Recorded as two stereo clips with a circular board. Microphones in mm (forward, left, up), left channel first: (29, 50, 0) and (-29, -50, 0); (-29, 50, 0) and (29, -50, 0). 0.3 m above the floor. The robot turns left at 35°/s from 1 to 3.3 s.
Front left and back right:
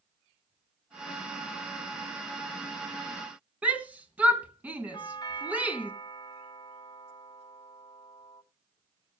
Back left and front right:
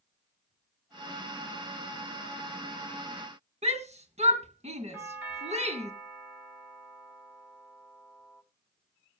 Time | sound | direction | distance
3.6 | a shout | 45° right | 3 m
4.9 | a doorbell | 15° left | 2 m